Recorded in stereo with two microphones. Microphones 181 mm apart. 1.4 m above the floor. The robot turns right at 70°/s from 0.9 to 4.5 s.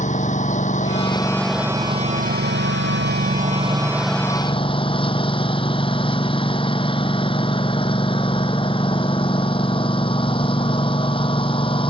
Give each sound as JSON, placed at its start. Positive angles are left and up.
{"t": 0.0, "sound": "a lawn mower", "azimuth_deg": 135}